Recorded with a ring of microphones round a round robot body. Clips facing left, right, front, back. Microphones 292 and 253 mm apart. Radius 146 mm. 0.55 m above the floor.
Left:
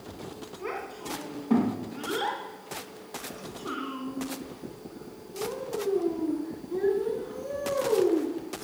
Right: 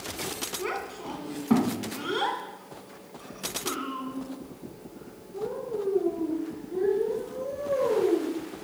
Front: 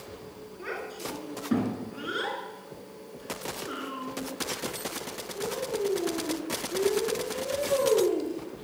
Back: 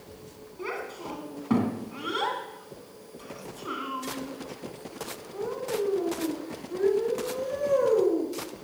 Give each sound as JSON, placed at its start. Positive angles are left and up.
{"t": 0.6, "sound": "a child speaking", "azimuth_deg": -140, "distance_m": 3.0}